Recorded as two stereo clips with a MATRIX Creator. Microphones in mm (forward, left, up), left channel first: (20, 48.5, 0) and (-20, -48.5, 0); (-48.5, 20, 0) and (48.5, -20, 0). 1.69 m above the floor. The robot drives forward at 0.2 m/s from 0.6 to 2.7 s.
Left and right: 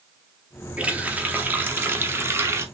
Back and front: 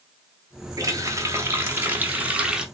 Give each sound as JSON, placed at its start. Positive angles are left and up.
{"t": 0.8, "sound": "a running tap", "azimuth_deg": -40, "distance_m": 0.8}